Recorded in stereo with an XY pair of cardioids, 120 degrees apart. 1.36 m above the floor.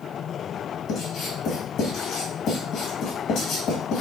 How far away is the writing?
About 1.5 m.